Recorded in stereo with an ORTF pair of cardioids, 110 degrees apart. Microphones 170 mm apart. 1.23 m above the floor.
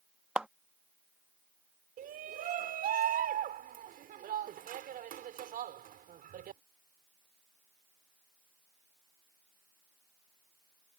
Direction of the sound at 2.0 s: 55° right.